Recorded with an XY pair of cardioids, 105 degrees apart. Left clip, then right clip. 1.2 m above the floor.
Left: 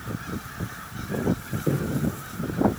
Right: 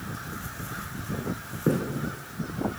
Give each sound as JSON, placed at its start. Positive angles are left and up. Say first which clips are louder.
{"t": 1.7, "sound": "footsteps", "louder": "right 2 dB", "azimuth_deg": -65, "distance_m": 4.0}